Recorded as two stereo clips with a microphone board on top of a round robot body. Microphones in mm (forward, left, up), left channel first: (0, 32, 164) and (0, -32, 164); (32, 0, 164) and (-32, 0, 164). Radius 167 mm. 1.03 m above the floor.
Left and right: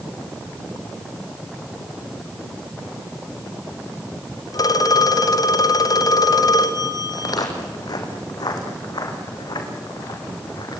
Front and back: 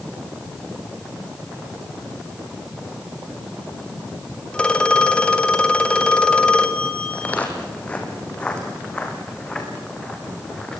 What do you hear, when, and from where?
4.5 s a phone ringing: 75° left, 2 m
7.1 s footsteps: 70° left, 3 m; by 10.8 s 80° left, 5 m